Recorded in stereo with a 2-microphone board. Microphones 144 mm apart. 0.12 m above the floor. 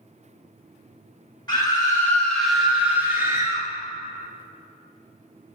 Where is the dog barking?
I don't hear a dog barking.